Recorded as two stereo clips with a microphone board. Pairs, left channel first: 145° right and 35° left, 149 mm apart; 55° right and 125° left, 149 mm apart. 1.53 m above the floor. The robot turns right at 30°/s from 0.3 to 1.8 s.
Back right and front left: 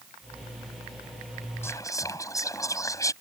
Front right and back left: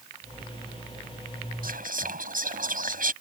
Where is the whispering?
140° left; by 3.1 s 145° left.